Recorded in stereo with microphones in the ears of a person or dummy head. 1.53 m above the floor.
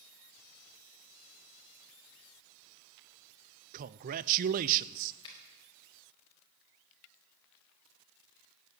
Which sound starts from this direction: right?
A man speaking, at 3.7 s.